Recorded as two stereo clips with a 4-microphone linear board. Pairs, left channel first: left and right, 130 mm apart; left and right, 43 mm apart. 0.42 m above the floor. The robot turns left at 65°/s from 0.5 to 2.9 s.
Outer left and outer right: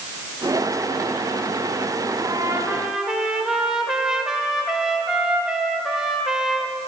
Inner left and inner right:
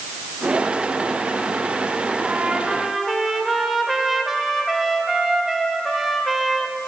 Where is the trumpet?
130° right, 1.1 m; by 6.8 s 175° right, 1.1 m.